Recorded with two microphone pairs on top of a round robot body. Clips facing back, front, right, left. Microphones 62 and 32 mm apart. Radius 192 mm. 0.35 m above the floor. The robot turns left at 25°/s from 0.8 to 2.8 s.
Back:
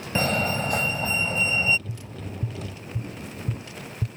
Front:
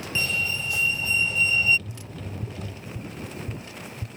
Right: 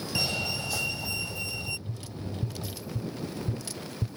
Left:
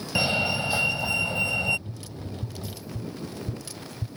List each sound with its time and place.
0.1 s a fire alarm: 140° left; by 1.8 s 115° left
1.9 s tapping: 130° right; by 4.1 s 150° right